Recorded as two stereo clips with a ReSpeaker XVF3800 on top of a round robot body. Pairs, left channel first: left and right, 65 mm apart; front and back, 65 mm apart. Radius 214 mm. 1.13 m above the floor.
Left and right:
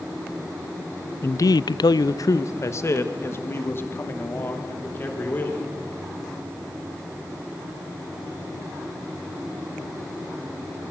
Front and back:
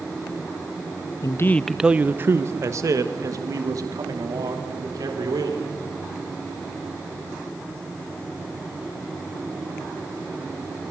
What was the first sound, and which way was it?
A man speaking, 35° left.